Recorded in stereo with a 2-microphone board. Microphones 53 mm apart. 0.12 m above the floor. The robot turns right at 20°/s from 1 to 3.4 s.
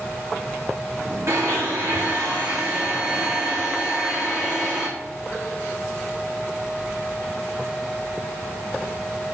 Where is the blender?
60° right, 3 m; by 4.9 s 15° right, 3 m.